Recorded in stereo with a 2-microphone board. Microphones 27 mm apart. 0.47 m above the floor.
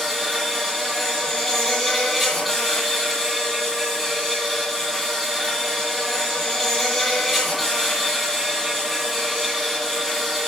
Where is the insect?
10° left (ahead or behind), 10 m.